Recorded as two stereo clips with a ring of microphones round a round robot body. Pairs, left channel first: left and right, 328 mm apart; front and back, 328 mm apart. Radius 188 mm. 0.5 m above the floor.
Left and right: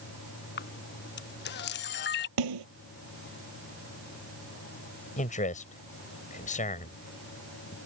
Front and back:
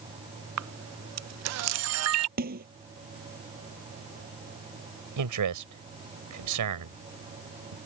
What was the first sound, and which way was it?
A camera shutter, 145° left.